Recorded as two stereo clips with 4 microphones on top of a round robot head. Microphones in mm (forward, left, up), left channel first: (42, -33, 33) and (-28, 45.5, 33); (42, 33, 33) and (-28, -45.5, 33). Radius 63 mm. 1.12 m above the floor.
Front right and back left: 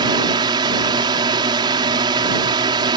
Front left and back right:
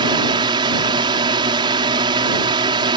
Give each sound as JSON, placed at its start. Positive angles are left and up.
{"t": 0.0, "sound": "a drone", "azimuth_deg": 180}